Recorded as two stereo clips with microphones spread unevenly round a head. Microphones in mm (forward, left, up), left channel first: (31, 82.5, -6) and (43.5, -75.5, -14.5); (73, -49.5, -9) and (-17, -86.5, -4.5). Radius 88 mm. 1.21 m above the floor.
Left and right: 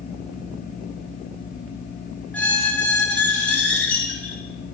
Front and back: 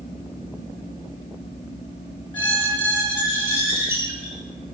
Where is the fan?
60° left, 0.8 m.